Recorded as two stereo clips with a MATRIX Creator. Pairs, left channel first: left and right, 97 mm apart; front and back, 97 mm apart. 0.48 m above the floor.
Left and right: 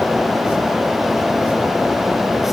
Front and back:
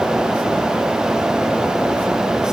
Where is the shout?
I don't hear a shout.